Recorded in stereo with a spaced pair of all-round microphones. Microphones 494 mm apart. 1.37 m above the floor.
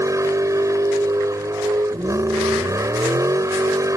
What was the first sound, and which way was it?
A vehicle, 5° right (ahead or behind).